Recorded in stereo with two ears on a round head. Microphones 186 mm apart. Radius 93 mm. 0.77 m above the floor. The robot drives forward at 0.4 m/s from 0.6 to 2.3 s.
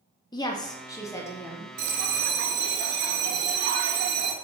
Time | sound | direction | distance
0.3 | a woman speaking | 20° left (ahead or behind) | 0.5 m
1.8 | a bell | 50° right (ahead or behind) | 0.5 m